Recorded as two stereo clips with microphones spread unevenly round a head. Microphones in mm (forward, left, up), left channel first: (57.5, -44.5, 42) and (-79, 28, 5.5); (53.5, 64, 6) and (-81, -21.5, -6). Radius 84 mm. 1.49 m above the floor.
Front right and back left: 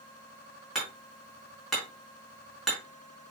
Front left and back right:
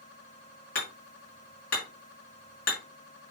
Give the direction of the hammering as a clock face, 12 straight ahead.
10 o'clock.